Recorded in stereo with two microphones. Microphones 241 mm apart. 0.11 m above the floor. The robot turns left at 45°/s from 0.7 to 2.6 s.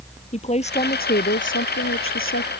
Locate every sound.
0.3 s a woman speaking: 150° left; by 2.5 s 65° left